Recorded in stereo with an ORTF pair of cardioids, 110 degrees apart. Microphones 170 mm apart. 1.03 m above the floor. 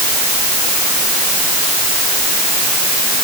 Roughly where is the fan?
No fan in this recording.